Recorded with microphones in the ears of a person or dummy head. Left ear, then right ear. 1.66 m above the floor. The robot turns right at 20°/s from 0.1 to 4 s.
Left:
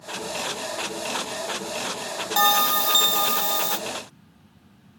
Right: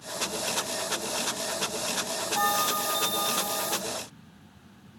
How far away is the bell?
About 0.8 m.